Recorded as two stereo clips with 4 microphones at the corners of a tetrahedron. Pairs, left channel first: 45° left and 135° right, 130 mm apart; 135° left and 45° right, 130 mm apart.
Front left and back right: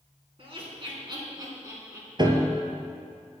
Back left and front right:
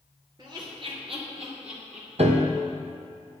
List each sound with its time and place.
0.4 s laughter: 95° right, 3.5 m; by 2.6 s 55° right, 4 m
2.2 s a piano: 80° right, 1.2 m